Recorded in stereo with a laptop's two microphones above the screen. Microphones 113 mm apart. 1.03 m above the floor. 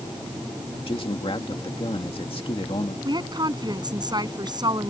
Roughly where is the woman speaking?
Right.